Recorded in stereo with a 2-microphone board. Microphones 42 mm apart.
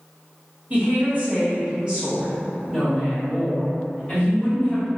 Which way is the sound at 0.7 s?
40° right (ahead or behind).